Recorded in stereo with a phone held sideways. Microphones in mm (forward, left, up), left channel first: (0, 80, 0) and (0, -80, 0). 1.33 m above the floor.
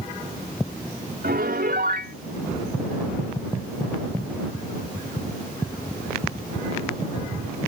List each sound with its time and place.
1.2 s a piano: 85° right